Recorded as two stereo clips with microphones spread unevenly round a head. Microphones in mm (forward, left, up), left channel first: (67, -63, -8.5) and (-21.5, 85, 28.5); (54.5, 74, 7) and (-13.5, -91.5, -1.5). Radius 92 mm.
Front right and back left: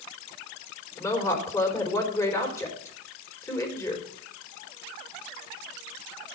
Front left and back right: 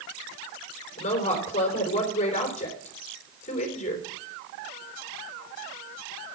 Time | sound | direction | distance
1.0 | a woman speaking | 15° left | 4 m